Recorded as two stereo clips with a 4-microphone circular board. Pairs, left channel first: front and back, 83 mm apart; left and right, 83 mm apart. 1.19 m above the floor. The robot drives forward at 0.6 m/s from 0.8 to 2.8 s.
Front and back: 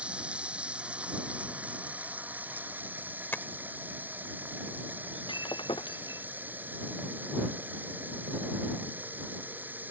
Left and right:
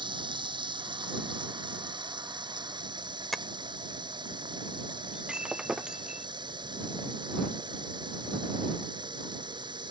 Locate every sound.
0.0 s running water: 105° right; by 9.9 s 110° right
3.3 s tapping: 5° right
5.1 s breaking glass: 10° right